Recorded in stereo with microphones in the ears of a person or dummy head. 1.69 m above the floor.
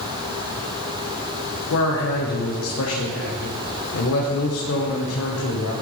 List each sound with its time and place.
1.7 s a man speaking: 85° left, 1.5 m